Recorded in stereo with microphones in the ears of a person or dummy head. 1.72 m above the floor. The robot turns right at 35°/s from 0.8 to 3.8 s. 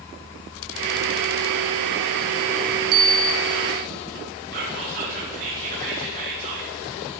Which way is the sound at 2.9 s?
50° right (ahead or behind).